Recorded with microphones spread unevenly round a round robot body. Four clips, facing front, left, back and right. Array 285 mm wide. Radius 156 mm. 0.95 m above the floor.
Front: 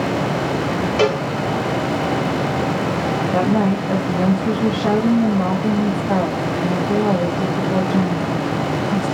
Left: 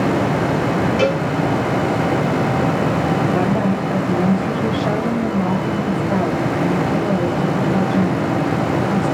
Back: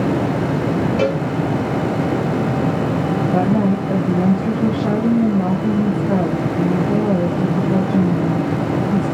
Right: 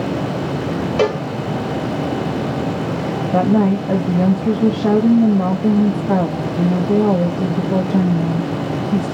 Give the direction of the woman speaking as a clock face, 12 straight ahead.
3 o'clock.